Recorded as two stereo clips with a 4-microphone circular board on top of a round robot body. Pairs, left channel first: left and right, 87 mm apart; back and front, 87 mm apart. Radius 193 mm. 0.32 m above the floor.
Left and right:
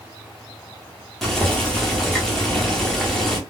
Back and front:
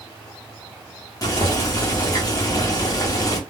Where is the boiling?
175° left, 1.3 m.